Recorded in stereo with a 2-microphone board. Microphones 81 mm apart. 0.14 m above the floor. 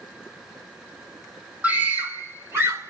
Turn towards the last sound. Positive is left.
turn(degrees=-35)  # may be behind; listen again after turning